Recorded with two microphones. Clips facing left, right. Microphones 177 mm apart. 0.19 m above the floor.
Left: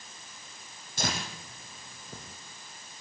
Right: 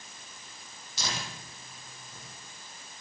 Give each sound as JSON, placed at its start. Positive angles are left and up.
{"t": 1.0, "sound": "tearing paper", "side_deg": 50, "distance_m": 4.0}